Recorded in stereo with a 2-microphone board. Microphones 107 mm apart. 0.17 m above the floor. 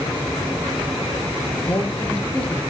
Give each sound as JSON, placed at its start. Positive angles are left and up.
{"t": 1.7, "sound": "a woman speaking", "side_deg": 10, "distance_m": 5.5}